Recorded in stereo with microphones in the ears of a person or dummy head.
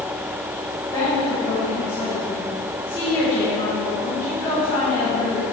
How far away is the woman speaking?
About 1.7 m.